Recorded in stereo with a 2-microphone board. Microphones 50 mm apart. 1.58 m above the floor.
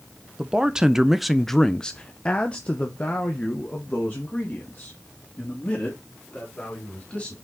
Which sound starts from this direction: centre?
A man speaking, at 0.4 s.